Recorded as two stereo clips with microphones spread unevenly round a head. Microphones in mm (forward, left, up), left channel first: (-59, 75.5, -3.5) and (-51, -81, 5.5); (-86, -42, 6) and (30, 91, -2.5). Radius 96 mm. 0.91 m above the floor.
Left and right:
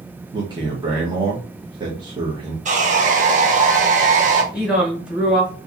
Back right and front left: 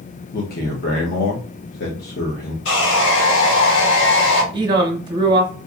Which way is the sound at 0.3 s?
145° right.